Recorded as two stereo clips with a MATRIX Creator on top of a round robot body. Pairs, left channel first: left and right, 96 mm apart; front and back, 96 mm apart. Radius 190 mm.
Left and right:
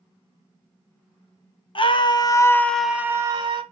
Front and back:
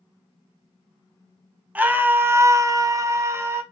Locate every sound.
1.8 s a scream: 110° left, 1.1 m; by 3.6 s 120° right, 1.0 m